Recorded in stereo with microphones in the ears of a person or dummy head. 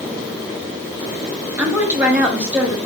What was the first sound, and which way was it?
A woman speaking, 5° right (ahead or behind).